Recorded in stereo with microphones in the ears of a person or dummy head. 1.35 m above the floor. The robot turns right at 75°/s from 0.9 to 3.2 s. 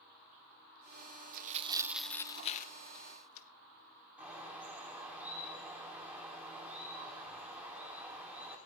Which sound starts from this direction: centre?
A bird, at 4.2 s.